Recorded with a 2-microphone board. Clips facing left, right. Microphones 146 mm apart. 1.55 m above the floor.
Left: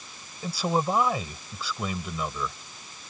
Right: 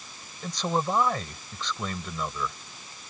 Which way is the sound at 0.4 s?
5° left (ahead or behind).